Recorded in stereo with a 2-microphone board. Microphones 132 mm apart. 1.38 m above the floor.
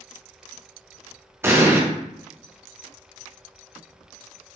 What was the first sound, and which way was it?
An explosion, 20° right (ahead or behind).